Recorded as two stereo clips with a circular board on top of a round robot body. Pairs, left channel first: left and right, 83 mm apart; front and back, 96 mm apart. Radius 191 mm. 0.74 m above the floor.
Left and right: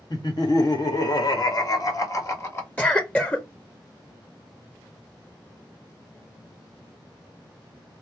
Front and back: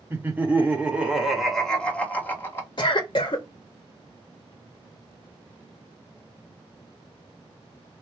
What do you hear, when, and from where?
0.1 s laughter: 115° left, 1.7 m; by 2.7 s 45° left, 1.3 m
2.8 s a cough: 20° left, 0.7 m